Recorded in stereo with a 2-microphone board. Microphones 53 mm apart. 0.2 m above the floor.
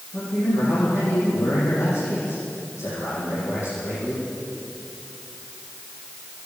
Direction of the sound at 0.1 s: 65° left (ahead or behind).